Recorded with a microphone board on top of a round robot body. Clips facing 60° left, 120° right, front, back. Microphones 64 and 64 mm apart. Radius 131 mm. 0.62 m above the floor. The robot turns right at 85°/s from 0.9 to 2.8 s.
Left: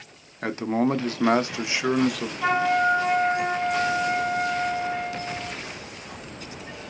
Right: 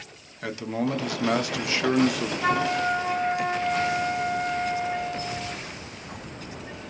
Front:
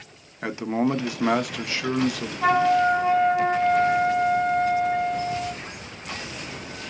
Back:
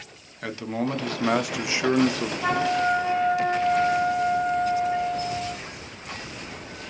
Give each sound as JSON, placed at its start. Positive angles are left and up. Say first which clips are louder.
{"t": 0.4, "sound": "a man speaking", "louder": "left 4 dB, front 4 dB", "azimuth_deg": 50, "distance_m": 0.6}
{"t": 2.4, "sound": "a flute", "louder": "left 4 dB, front 5 dB", "azimuth_deg": -10, "distance_m": 0.7}